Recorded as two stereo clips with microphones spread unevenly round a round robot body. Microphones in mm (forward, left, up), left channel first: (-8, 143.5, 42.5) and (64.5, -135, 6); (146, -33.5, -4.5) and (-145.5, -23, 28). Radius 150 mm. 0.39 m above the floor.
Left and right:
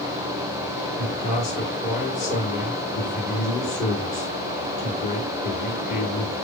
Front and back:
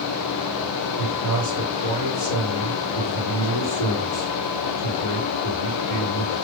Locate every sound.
1.0 s a man speaking: 40° left, 4.5 m